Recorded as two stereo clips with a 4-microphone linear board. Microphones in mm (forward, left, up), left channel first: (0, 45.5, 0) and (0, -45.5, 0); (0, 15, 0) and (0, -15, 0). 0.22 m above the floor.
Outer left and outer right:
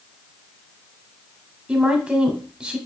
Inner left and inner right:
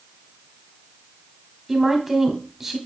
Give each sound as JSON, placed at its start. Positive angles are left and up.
{"t": 1.7, "sound": "a woman speaking", "side_deg": -15, "distance_m": 1.1}